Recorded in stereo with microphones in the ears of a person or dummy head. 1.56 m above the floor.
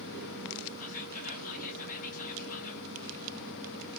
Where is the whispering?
50° left (ahead or behind), 0.9 m.